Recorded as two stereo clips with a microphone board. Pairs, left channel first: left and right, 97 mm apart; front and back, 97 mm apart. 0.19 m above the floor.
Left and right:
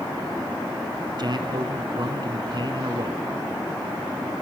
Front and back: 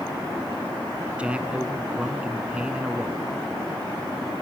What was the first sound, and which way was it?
A man speaking, 105° right.